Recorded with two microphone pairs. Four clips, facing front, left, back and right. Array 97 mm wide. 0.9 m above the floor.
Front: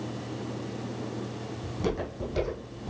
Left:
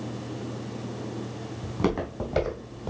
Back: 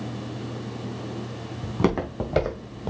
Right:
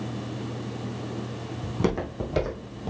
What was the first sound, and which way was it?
Footsteps, 165° left.